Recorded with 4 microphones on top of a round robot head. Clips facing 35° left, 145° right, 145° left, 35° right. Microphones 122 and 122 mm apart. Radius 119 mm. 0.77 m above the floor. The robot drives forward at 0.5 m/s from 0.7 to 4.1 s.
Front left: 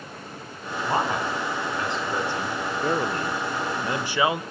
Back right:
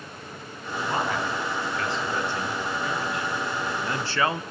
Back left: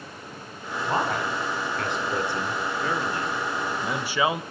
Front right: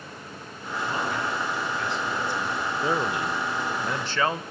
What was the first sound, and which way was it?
A man speaking, 105° left.